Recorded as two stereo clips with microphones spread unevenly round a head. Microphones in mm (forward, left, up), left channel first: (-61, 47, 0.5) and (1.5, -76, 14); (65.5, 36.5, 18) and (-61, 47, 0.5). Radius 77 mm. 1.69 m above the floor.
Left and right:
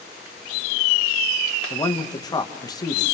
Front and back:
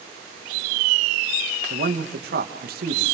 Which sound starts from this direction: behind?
A man speaking, at 1.7 s.